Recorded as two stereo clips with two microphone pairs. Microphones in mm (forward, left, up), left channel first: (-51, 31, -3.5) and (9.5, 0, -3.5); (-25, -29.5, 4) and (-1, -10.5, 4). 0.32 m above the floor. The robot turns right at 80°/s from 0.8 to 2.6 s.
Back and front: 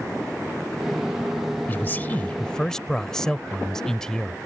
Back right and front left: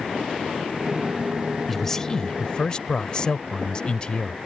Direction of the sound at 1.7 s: 150° left.